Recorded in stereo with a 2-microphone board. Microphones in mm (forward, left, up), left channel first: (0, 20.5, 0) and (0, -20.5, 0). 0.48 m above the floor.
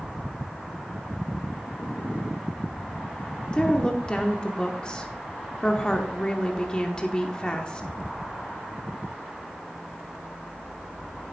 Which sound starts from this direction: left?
A woman speaking, at 3.5 s.